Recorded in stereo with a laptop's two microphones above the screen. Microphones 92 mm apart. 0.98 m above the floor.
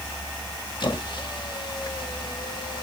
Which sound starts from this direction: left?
A squeak, at 0.8 s.